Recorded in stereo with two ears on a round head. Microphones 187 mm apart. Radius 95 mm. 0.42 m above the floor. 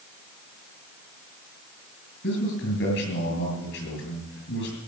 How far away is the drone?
I don't hear a drone.